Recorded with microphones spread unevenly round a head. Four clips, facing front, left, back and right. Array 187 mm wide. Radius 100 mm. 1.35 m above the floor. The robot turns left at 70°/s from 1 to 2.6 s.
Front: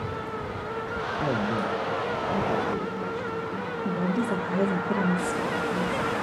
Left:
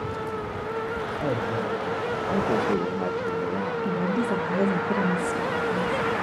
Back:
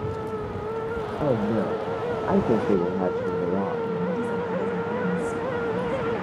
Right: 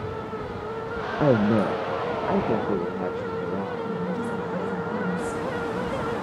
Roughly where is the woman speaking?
Ahead left.